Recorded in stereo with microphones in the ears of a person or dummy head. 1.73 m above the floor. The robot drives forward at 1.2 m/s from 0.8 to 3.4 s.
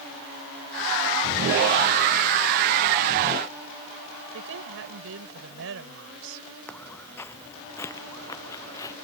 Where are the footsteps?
5° left (ahead or behind); by 8.9 s 20° left (ahead or behind).